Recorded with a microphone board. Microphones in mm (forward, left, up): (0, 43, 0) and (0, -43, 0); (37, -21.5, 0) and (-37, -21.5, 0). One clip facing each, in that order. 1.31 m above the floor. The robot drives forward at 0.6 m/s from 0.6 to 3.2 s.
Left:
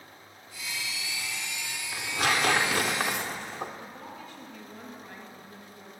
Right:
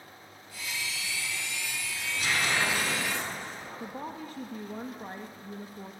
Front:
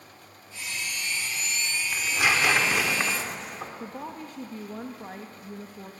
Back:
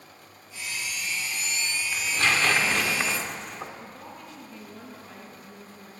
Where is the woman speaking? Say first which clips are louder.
Right 4 dB, front 5 dB; 40° right, 2 m.